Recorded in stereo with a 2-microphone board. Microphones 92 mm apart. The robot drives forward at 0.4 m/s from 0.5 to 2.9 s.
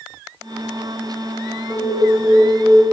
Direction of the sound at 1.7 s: Centre (ahead or behind).